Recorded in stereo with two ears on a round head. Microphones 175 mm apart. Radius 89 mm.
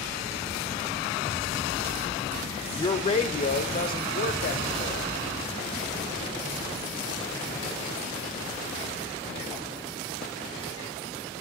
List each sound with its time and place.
2.8 s a man speaking: 20° left (ahead or behind), 1.0 m; by 5.2 s 50° left (ahead or behind), 2 m